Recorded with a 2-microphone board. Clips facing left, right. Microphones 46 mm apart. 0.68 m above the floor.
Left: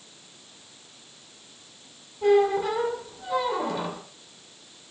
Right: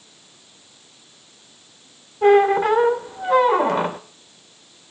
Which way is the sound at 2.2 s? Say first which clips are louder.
Right 6 dB; 50° right (ahead or behind).